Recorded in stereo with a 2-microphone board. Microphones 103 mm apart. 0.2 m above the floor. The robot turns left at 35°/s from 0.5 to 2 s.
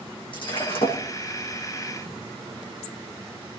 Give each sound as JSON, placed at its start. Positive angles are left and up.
{"t": 0.3, "sound": "breaking glass", "side_deg": 55, "distance_m": 7.5}